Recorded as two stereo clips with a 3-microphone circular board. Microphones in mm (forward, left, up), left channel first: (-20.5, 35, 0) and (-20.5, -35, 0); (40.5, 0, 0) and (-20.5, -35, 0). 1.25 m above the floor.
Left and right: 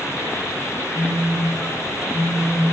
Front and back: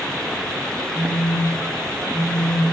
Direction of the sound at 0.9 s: 50° right.